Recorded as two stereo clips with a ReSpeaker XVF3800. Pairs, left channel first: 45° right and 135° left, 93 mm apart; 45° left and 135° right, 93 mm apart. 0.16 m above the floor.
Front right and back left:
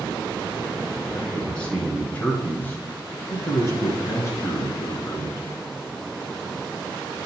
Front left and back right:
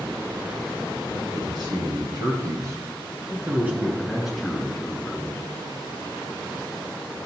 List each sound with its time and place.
1.1 s a man speaking: 125° right, 2.5 m; by 5.5 s 20° right, 2 m